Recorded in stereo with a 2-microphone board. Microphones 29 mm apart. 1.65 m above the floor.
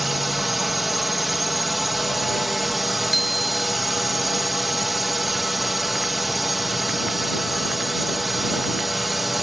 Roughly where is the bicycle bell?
Centre.